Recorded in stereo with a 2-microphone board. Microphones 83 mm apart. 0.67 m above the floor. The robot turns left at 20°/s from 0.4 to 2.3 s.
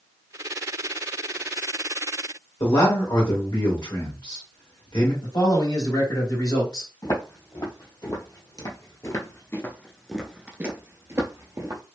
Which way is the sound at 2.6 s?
65° left (ahead or behind).